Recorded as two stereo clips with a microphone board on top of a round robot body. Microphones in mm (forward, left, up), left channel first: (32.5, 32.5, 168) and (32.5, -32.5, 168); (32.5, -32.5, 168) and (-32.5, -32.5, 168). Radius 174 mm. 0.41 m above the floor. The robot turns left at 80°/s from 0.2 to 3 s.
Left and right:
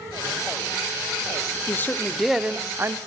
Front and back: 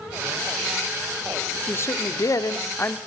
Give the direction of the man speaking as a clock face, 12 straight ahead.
10 o'clock.